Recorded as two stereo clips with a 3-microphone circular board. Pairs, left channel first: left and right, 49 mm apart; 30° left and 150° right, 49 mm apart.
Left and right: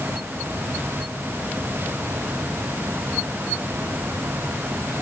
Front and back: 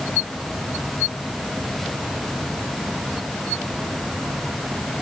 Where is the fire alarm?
No fire alarm in this recording.